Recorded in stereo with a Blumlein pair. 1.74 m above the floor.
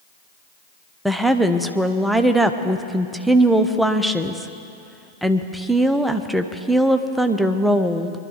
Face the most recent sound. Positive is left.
turn(degrees=-5)